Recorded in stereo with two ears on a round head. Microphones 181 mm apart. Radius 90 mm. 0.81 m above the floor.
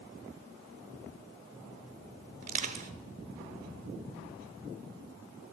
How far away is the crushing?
About 0.8 m.